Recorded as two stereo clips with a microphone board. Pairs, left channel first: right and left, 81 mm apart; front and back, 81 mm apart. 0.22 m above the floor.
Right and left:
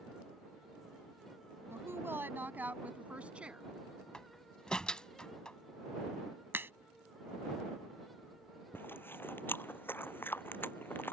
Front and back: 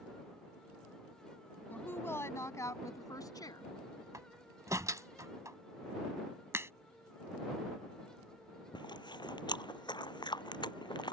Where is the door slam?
165° right.